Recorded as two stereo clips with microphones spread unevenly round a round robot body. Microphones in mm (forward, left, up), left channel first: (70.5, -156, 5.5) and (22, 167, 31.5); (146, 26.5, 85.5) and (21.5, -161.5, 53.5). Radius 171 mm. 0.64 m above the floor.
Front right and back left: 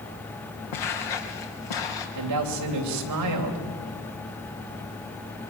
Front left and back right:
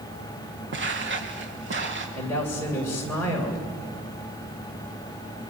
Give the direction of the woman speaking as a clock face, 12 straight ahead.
7 o'clock.